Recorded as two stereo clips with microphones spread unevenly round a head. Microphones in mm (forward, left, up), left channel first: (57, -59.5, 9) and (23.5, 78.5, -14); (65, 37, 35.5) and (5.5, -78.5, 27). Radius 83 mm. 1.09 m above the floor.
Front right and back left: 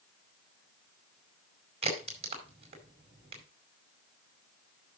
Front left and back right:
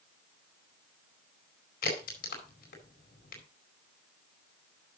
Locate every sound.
1.8 s a crack: 55° left, 4.5 m